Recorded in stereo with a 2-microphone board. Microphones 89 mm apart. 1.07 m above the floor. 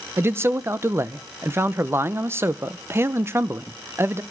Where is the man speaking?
30° right (ahead or behind), 0.6 m.